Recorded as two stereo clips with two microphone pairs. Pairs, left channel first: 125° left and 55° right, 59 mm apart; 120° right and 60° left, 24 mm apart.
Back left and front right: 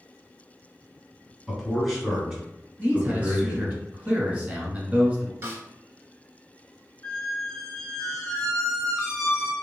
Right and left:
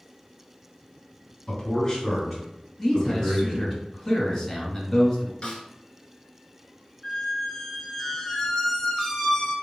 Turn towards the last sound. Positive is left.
turn(degrees=-170)